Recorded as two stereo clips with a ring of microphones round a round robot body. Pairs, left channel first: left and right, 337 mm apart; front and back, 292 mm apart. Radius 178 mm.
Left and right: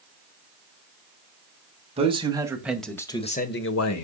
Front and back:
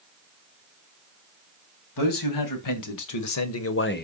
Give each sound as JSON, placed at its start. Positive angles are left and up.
{"t": 2.0, "sound": "a man speaking", "azimuth_deg": -15, "distance_m": 3.0}